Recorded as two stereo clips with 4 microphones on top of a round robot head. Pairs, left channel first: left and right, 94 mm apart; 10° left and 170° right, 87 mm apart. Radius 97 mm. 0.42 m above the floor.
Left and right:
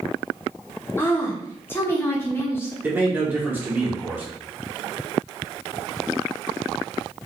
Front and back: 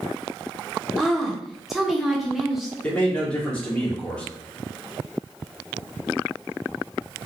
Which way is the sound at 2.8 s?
50° right.